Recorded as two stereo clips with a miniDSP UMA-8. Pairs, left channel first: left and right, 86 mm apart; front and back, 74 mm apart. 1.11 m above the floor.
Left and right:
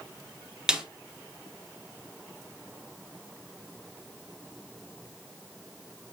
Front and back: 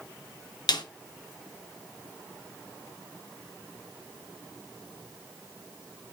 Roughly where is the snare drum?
Ahead.